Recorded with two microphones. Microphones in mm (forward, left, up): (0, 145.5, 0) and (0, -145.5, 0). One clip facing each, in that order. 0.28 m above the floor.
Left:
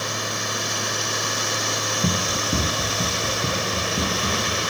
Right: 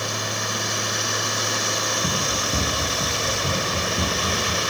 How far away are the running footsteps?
About 2.5 m.